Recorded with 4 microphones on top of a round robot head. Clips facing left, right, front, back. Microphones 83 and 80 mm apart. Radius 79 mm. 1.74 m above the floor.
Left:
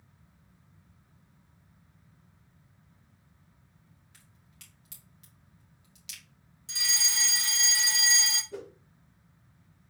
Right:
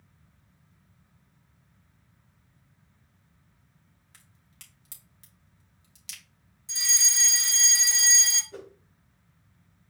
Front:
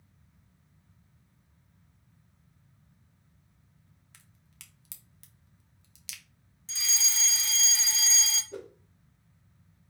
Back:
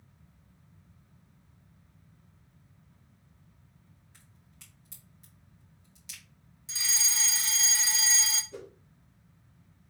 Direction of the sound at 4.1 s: 25° right.